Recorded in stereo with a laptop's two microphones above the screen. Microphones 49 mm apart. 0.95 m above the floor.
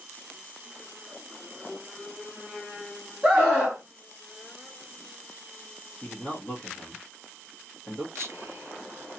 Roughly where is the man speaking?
Centre.